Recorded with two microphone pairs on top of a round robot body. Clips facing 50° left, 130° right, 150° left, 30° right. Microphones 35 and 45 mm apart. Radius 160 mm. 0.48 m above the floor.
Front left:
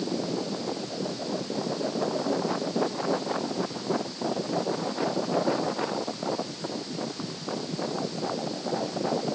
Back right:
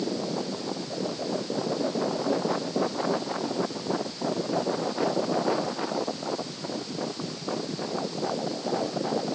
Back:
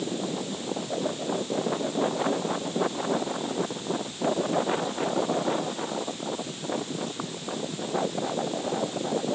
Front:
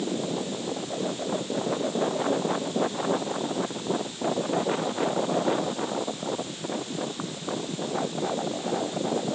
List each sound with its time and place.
Only background noise.